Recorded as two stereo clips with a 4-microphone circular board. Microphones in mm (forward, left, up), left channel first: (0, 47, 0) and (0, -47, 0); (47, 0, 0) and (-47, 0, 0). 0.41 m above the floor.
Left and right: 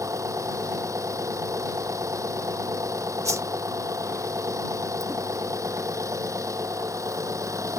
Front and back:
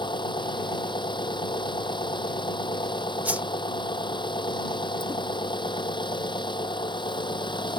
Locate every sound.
0.0 s an engine running: 35° right
3.2 s a whoosh: 120° right